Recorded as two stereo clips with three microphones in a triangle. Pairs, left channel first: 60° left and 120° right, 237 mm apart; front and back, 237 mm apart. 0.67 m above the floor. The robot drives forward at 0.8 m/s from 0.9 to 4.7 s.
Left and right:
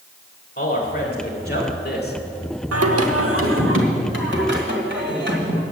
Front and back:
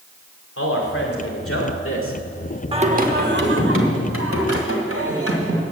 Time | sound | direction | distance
0.6 | a man speaking | 10° left | 2.5 m
2.7 | singing | 115° right | 0.7 m